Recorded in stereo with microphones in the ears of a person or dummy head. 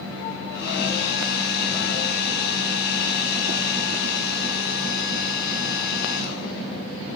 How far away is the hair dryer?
About 6 m.